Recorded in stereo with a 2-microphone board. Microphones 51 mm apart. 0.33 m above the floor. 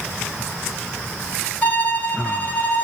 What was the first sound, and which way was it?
A violin, 30° left (ahead or behind).